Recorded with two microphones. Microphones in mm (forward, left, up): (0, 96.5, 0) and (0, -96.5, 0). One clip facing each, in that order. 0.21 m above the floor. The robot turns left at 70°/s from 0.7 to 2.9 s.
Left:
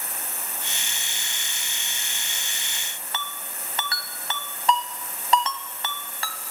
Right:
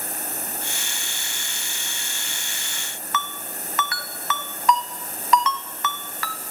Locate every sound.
3.1 s a ringtone: 30° left (ahead or behind), 0.9 m